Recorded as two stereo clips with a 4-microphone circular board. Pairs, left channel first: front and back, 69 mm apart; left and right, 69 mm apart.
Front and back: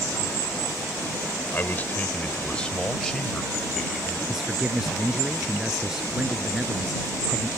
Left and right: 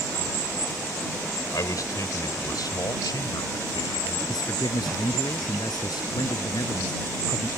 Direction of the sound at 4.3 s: 95° left.